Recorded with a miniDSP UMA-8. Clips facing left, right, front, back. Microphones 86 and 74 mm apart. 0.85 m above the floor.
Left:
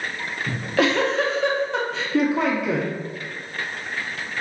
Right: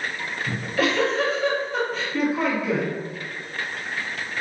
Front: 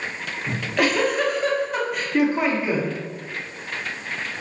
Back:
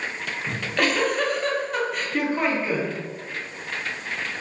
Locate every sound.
0.5 s a giggle: 85° left, 0.7 m